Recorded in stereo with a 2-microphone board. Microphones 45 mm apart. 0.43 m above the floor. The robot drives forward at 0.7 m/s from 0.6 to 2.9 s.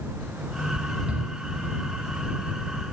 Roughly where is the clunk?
I don't hear a clunk.